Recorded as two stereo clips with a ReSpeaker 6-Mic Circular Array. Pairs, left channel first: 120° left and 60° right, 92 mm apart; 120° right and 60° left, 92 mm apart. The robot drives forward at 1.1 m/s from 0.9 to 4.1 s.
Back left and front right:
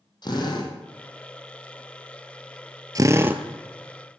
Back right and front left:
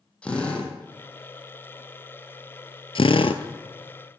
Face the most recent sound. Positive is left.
turn(degrees=-150)